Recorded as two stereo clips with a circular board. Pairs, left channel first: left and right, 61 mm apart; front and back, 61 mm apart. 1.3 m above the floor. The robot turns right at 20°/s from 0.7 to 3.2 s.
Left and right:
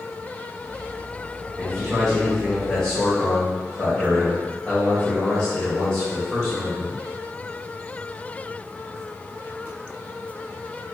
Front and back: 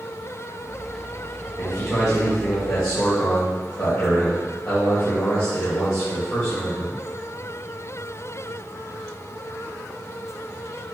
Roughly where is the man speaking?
Ahead.